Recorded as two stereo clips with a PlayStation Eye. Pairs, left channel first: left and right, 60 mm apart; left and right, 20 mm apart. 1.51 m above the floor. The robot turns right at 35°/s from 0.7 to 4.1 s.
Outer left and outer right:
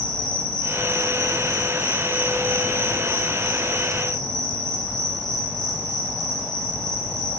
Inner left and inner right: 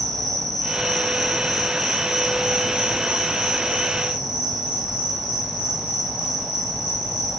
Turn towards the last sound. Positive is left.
turn(degrees=-80)